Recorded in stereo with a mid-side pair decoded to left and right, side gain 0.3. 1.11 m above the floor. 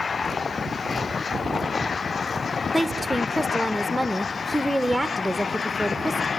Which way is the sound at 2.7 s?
Straight ahead.